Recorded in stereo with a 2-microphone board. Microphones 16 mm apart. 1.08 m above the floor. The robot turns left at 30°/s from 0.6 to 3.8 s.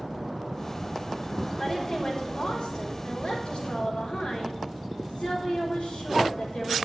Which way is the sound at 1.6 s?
150° left.